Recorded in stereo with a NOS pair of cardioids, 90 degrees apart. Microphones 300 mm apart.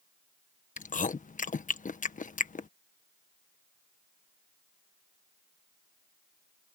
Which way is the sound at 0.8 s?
25° left.